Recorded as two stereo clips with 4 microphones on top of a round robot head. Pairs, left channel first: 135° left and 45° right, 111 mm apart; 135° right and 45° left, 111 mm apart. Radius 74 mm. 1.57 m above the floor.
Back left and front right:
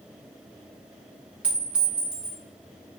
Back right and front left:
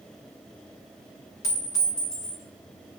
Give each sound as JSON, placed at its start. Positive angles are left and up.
{"t": 1.4, "sound": "a clink", "azimuth_deg": -110, "distance_m": 0.6}